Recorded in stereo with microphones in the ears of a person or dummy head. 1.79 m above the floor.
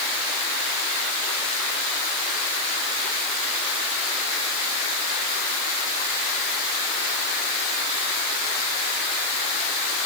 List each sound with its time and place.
Only background noise.